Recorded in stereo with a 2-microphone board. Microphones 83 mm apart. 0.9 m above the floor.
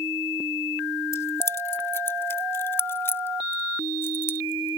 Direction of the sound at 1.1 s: 30° left (ahead or behind).